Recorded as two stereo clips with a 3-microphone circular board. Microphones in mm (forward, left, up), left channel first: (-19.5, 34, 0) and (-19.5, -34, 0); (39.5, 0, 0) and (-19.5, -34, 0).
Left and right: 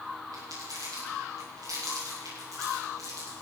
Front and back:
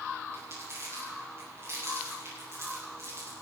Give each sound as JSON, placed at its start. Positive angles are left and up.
{"t": 0.3, "sound": "crumpling", "azimuth_deg": -105, "distance_m": 8.5}